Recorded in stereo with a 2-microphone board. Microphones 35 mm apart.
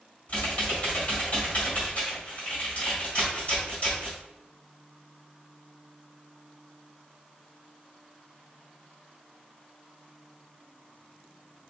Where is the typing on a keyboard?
45° left (ahead or behind), 2.0 m.